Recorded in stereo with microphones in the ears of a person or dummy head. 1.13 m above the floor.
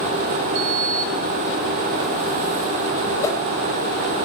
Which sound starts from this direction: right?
A sliding door, at 0.6 s.